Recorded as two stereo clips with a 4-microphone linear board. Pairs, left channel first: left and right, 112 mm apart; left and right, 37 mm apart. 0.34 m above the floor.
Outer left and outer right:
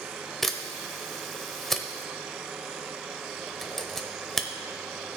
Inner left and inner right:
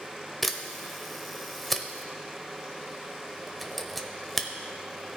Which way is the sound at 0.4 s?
Centre (ahead or behind).